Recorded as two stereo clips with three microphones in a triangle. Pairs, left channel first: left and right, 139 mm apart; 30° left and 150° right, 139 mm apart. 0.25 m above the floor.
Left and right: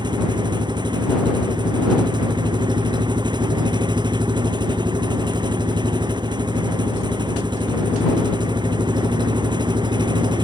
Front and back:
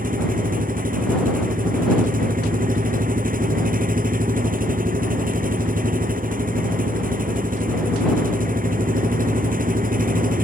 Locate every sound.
0.0 s an engine running: 150° right